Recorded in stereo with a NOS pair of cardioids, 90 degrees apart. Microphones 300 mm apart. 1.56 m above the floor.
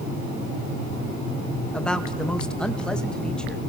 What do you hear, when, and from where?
1.7 s a man speaking: 5° left, 2.5 m